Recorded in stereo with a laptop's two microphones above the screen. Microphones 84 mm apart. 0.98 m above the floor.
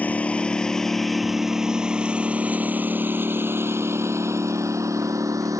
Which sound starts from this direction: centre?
A lawn mower, at 0.0 s.